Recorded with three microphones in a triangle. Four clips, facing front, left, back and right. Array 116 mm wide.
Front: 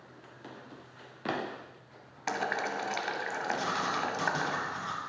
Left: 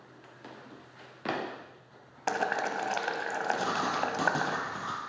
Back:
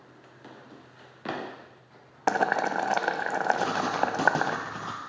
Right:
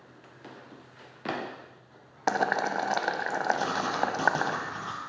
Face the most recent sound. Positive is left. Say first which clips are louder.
# right 2 dB, back 5 dB
turn(degrees=170)